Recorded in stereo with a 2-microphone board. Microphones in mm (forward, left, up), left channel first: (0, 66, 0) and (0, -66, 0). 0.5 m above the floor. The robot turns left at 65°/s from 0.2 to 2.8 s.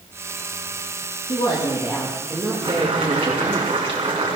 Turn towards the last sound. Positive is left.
turn(degrees=-45)  # may be behind; listen again after turning